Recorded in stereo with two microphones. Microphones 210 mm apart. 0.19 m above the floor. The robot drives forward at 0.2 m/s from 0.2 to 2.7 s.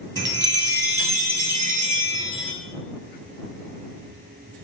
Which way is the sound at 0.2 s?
60° right (ahead or behind).